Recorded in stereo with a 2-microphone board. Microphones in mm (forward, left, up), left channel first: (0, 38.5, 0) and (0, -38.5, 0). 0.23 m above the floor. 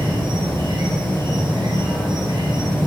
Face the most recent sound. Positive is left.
turn(degrees=-70)  # may be behind; listen again after turning